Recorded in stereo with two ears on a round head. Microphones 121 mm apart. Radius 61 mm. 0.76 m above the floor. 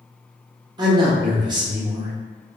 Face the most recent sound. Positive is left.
turn(degrees=-30)  # may be behind; listen again after turning